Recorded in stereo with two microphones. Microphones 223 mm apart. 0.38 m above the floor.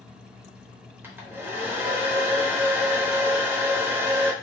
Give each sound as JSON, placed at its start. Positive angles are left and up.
{"t": 1.0, "sound": "a hair dryer", "side_deg": -10, "distance_m": 0.7}